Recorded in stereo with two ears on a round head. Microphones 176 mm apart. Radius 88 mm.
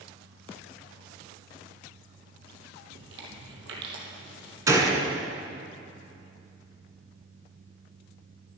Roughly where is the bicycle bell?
I don't hear a bicycle bell.